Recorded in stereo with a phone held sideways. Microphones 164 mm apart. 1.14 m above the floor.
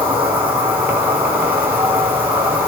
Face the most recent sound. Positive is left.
turn(degrees=-10)  # may be behind; listen again after turning